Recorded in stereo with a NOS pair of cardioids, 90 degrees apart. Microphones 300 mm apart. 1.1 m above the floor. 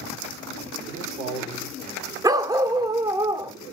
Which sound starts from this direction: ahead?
A dog barking, at 2.2 s.